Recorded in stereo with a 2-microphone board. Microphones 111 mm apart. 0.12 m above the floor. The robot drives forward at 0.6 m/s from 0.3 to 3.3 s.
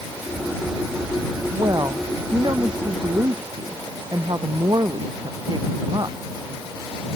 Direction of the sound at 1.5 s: 35° right (ahead or behind).